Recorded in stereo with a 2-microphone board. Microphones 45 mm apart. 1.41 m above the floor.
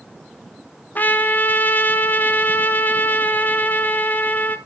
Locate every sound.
0.9 s a trumpet: 40° left (ahead or behind), 1.1 m